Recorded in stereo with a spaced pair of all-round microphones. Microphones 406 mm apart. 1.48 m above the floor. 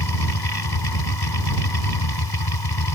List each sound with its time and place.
0.0 s a machine running: 70° left (ahead or behind)